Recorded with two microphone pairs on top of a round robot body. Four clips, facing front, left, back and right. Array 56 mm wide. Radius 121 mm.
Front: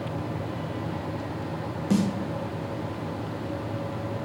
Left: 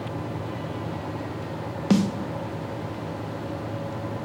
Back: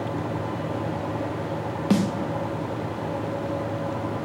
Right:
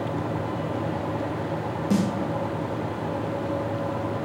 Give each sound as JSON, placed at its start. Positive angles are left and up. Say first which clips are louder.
{"t": 1.9, "sound": "a snare drum", "louder": "left 3 dB, back 2 dB", "azimuth_deg": 135, "distance_m": 0.6}